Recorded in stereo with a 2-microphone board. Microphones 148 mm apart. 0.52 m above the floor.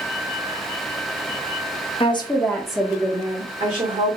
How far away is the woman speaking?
About 0.9 m.